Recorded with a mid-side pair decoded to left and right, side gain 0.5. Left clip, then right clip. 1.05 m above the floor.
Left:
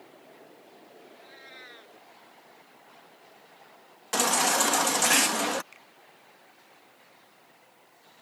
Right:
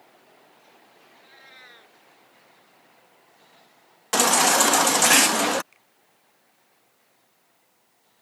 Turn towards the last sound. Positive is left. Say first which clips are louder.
# left 7 dB
turn(degrees=35)